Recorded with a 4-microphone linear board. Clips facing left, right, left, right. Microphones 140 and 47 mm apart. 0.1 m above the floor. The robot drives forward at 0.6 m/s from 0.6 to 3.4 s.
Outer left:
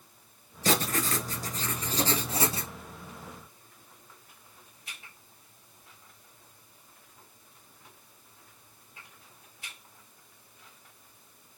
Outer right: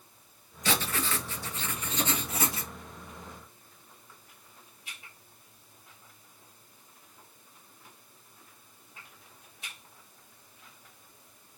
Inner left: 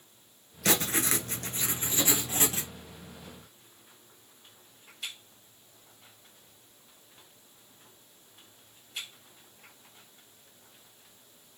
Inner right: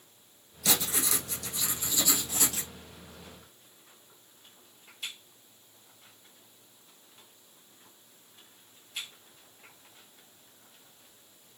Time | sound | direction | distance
0.7 | writing | 40° left (ahead or behind) | 1.1 m